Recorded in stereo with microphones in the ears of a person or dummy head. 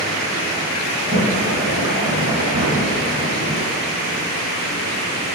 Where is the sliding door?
35° right (ahead or behind), 2.5 m.